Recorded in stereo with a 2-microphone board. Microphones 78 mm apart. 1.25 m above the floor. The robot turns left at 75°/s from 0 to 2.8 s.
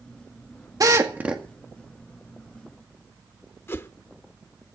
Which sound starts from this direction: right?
A drill, at 0.8 s.